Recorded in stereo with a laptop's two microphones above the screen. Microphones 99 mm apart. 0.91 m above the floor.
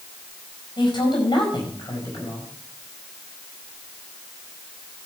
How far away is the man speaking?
About 5.5 m.